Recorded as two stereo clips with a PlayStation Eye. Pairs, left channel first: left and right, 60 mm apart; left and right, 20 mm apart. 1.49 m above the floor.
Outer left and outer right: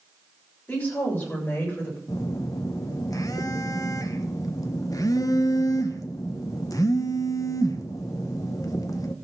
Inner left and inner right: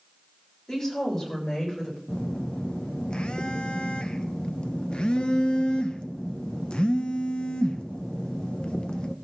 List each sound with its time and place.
0.7 s a woman speaking: 30° left (ahead or behind), 7 m; by 2.0 s 35° left (ahead or behind), 7.5 m
2.1 s a phone buzzing: 70° left (ahead or behind), 0.9 m